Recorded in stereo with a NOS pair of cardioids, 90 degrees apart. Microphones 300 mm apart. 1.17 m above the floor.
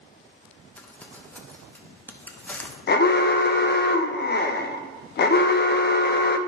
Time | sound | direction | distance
0.8 | crumpling | 5° left | 1.1 m
2.9 | an alarm | 35° left | 0.6 m